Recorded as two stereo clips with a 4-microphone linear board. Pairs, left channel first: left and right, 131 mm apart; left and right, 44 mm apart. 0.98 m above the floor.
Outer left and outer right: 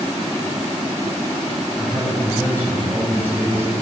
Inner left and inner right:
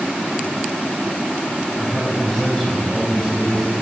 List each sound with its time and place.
1.8 s a man speaking: 15° left (ahead or behind), 6.5 m